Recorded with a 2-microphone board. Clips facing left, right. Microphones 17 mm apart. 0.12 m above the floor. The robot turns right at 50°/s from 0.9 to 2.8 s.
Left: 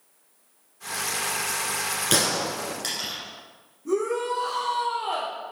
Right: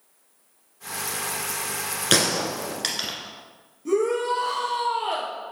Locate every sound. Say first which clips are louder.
2.1 s a gunshot: right 3 dB; 25° right (ahead or behind), 1.4 m; by 3.1 s 35° right (ahead or behind), 1.4 m
3.9 s a shout: right 3 dB; 60° right (ahead or behind), 2.5 m